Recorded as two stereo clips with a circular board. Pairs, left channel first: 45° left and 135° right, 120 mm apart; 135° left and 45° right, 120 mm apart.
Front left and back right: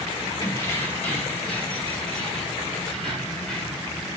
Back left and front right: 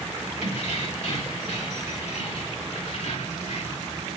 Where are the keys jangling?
115° left, 2.5 m; by 3.9 s 130° left, 5 m.